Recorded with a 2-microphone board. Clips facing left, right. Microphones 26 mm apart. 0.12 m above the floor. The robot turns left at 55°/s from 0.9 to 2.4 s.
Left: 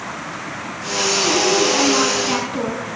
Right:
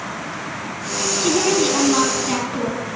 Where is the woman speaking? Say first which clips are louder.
Even; 135° right, 4 m; by 2.8 s 160° left, 4 m.